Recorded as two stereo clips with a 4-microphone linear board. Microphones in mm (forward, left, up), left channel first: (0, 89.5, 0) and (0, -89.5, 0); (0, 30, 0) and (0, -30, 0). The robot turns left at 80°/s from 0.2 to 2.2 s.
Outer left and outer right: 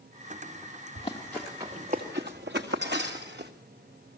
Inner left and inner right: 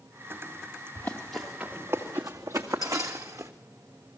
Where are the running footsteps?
40° left (ahead or behind), 3 m; by 3.5 s 70° right (ahead or behind), 1.8 m.